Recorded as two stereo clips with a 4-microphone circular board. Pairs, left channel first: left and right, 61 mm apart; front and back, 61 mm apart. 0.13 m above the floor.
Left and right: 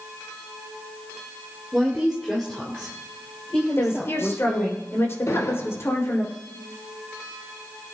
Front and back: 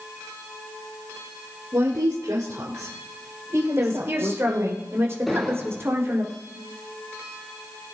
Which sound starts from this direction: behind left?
A woman speaking, at 3.8 s.